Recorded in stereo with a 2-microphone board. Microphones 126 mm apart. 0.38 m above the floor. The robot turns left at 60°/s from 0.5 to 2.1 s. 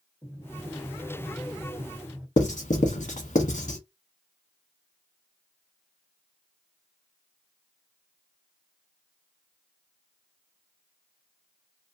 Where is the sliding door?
25° left (ahead or behind), 1.4 m; by 2.3 s 10° right (ahead or behind), 1.4 m.